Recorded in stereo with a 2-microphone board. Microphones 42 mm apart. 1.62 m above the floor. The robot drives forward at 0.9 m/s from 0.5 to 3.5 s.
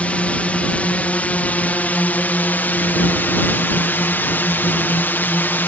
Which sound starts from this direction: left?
A drone, at 0.0 s.